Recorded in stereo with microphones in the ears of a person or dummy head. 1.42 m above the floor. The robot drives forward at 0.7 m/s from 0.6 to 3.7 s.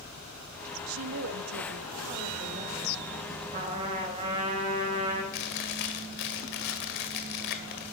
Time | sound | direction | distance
0.9 | a woman speaking | 75° right (ahead or behind) | 0.9 m
3.5 | a trumpet | 30° right (ahead or behind) | 5 m
5.3 | chewing | 60° left (ahead or behind) | 2 m